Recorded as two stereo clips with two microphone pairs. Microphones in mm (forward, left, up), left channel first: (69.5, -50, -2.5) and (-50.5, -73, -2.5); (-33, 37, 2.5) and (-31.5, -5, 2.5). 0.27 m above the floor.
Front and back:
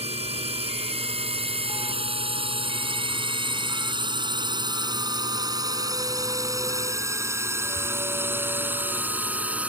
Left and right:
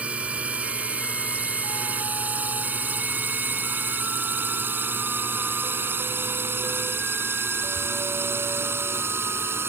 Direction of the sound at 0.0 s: 145° right.